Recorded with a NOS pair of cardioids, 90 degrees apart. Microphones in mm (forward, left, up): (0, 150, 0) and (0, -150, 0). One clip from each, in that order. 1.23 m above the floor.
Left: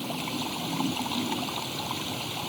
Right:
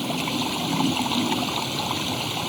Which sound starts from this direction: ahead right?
Running water, at 0.0 s.